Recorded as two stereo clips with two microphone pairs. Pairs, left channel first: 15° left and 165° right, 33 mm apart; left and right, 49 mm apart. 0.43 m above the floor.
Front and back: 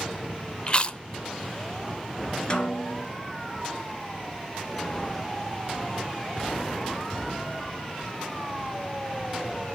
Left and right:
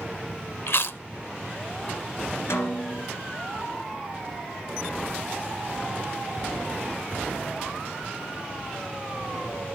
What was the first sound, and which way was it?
Chewing, 70° left.